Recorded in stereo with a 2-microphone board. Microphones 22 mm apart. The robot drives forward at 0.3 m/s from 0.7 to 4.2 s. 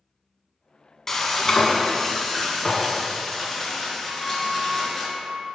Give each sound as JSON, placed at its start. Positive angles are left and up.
{"t": 1.1, "sound": "frying", "side_deg": 20, "distance_m": 1.0}
{"t": 4.0, "sound": "a flute", "side_deg": 40, "distance_m": 2.5}